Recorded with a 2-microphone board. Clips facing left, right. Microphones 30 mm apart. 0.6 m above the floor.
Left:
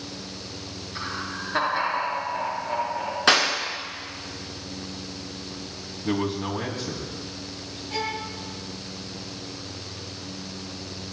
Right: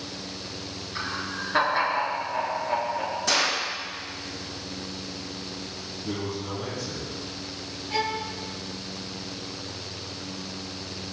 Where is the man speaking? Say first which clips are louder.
Left 6 dB; 75° left (ahead or behind), 4.5 m.